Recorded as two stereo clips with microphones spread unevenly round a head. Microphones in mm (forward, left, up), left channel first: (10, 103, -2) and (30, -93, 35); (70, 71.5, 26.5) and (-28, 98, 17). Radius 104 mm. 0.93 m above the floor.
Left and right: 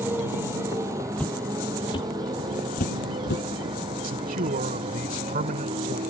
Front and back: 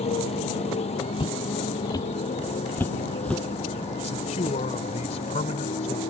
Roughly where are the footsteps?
Ahead.